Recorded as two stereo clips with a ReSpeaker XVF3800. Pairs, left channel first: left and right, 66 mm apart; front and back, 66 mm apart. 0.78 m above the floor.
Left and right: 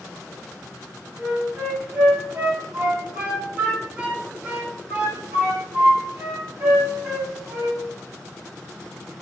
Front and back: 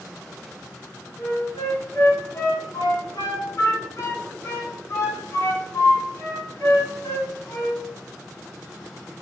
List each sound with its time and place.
1.2 s a flute: 25° right, 1.9 m